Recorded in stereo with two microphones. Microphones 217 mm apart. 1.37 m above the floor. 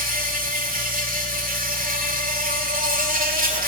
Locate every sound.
0.0 s an insect: 40° right (ahead or behind), 2.5 m